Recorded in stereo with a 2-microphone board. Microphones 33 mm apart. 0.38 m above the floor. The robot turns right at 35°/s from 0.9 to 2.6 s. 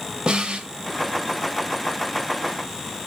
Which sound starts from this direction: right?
A snare drum, at 0.3 s.